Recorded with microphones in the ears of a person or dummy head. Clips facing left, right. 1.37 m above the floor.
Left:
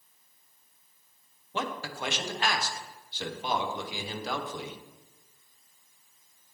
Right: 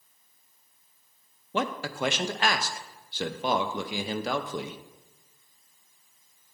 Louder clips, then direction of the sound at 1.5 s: Right 5 dB; 50° right (ahead or behind).